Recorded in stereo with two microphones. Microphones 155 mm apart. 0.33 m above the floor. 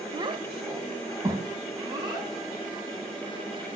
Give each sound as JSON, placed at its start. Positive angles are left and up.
{"t": 0.1, "sound": "a child speaking", "side_deg": -30, "distance_m": 0.6}